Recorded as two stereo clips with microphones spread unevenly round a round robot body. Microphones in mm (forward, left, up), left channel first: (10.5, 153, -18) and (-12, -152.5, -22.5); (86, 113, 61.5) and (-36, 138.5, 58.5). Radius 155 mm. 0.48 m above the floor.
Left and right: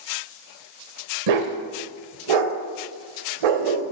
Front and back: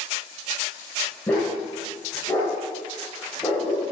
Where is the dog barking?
95° right, 0.7 m.